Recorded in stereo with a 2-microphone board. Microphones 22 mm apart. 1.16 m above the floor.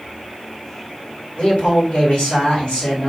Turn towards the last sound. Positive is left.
turn(degrees=70)  # may be behind; listen again after turning